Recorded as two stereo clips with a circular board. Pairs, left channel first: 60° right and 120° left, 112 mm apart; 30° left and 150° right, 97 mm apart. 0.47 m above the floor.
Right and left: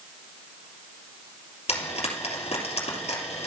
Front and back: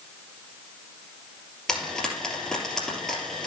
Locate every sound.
1.7 s frying: 55° right, 3 m